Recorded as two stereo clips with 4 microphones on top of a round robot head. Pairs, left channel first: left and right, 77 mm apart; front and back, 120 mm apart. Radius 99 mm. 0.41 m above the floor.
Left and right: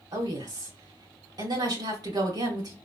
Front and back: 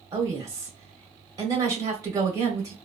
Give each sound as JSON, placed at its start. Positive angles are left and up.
{"t": 0.1, "sound": "a woman speaking", "azimuth_deg": -115, "distance_m": 2.0}